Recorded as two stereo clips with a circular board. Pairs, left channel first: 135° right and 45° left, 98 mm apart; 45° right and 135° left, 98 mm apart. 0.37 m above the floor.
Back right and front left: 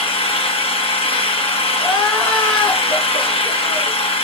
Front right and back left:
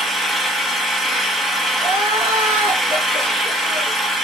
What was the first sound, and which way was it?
An engine running, 135° right.